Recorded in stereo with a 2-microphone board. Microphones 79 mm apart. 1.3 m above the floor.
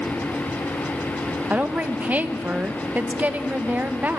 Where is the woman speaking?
20° right (ahead or behind), 0.9 m.